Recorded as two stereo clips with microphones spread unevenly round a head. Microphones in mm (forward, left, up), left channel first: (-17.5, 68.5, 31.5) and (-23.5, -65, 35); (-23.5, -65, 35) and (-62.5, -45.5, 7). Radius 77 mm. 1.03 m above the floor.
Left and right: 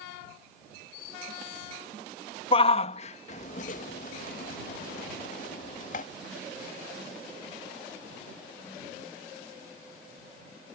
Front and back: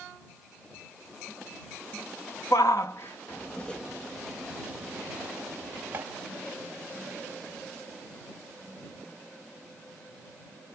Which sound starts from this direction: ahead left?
A shout, at 2.5 s.